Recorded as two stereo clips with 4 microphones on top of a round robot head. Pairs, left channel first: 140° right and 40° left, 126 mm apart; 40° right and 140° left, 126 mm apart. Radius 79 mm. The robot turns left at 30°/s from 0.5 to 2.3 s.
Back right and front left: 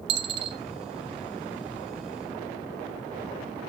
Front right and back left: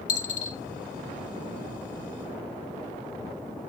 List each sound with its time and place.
0.1 s a dropped coin: 10° right, 0.7 m; by 0.6 s 15° right, 0.7 m